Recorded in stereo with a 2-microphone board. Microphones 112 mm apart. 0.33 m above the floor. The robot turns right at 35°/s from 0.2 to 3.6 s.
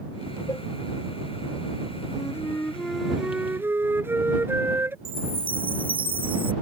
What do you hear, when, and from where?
0.5 s a cowbell: 30° left (ahead or behind); by 0.7 s 35° left (ahead or behind)
2.1 s a flute: 150° left; by 5.0 s 160° right
5.0 s a chime: 55° right (ahead or behind)